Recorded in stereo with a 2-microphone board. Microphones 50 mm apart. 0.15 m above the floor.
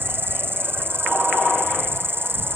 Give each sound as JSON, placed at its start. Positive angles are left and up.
{"t": 0.0, "sound": "an insect", "side_deg": -50}